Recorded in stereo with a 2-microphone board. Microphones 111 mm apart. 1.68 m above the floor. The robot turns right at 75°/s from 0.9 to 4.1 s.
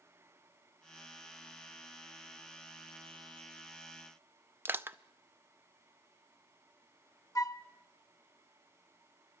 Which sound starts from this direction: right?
Crushing, at 4.7 s.